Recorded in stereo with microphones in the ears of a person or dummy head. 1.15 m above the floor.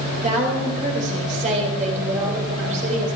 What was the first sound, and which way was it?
A woman speaking, 45° right (ahead or behind).